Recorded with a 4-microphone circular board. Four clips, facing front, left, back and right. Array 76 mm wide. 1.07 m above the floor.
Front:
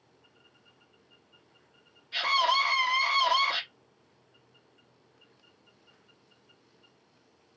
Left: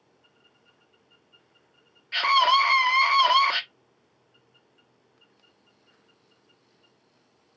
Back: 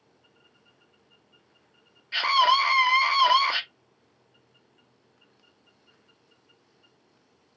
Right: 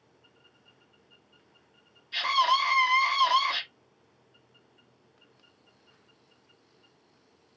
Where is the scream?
125° left, 1.5 m.